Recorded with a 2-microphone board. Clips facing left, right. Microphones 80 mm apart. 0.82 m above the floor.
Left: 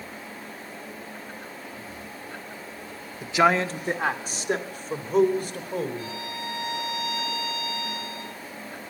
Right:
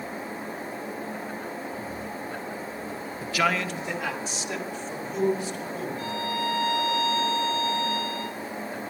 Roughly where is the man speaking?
Centre.